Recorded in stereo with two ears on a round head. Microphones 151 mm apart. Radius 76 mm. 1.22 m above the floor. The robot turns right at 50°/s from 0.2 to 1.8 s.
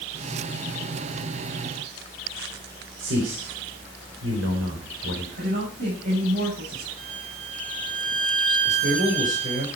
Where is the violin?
80° right, 7 m.